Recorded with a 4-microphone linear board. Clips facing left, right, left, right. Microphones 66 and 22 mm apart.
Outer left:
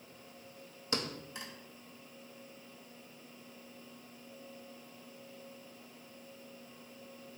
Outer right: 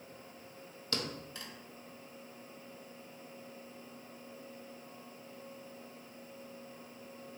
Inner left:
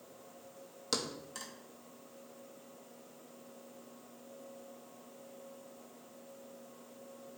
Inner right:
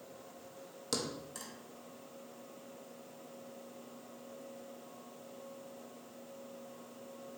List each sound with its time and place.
0.9 s a thud: 20° left (ahead or behind), 0.8 m